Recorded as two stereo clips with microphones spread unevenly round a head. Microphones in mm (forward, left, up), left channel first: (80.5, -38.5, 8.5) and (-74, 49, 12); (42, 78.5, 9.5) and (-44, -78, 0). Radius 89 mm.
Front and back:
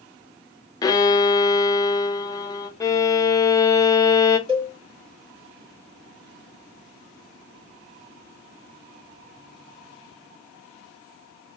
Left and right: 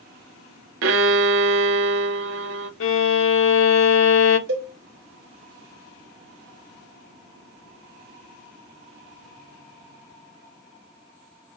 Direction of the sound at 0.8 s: 100° right.